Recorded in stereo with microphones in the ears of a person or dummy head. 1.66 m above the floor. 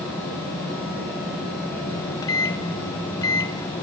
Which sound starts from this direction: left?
A microwave, at 1.9 s.